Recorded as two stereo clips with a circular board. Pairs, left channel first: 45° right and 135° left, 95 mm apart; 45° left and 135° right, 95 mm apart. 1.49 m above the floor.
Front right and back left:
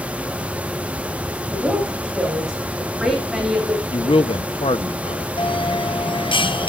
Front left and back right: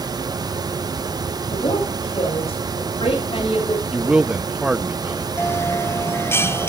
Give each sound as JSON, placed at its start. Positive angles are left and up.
{"t": 1.5, "sound": "a woman speaking", "azimuth_deg": 55, "distance_m": 9.0}
{"t": 3.9, "sound": "a man speaking", "azimuth_deg": -55, "distance_m": 0.8}
{"t": 5.4, "sound": "a bell", "azimuth_deg": -20, "distance_m": 0.8}